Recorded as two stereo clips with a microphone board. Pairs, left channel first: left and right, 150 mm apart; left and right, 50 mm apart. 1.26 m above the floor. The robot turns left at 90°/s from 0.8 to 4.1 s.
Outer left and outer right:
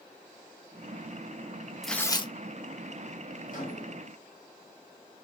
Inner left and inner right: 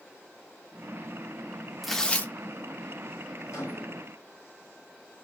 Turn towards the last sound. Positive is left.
turn(degrees=10)